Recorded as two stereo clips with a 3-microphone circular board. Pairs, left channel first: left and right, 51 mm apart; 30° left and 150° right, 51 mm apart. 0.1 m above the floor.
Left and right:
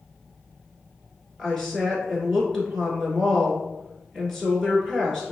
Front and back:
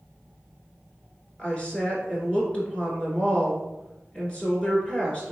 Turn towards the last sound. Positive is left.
turn(degrees=20)